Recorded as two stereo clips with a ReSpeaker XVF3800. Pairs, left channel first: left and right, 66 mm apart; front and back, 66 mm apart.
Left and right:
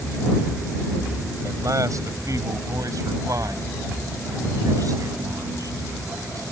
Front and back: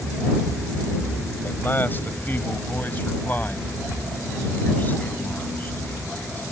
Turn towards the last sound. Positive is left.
turn(degrees=-65)